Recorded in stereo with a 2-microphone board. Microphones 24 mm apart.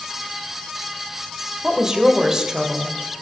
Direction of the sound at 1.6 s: 30° right (ahead or behind).